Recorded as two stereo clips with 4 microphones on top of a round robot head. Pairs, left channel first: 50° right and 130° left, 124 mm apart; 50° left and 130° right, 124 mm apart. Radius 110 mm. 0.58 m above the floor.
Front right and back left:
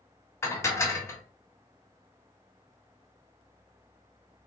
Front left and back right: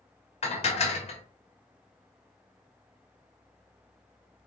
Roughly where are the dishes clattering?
Ahead.